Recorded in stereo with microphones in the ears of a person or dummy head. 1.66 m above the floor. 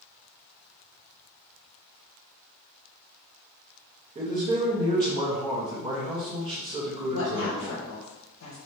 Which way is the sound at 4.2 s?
25° right (ahead or behind).